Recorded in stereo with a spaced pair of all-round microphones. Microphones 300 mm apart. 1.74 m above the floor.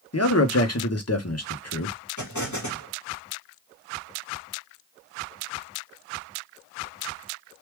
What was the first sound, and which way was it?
A man speaking, 55° left (ahead or behind).